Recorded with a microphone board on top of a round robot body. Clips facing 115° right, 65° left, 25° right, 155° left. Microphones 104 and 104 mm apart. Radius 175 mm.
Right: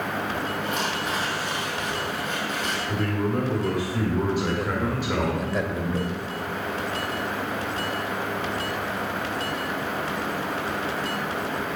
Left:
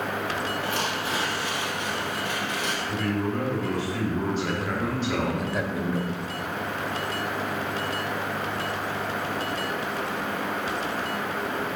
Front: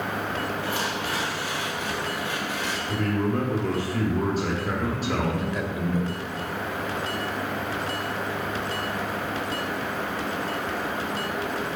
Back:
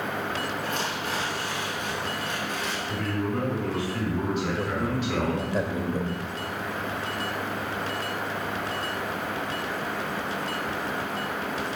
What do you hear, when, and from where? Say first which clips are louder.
0.6 s tearing paper: right 1 dB, front 2 dB; 65° left, 2.5 m
2.9 s a man speaking: right 2 dB, front 4 dB; 40° right, 1.6 m
4.6 s a man speaking: right 1 dB, even; 150° left, 1.1 m